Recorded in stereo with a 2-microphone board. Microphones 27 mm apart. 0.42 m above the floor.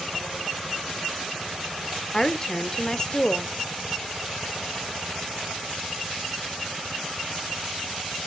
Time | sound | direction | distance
2.1 | a woman speaking | 25° left (ahead or behind) | 0.8 m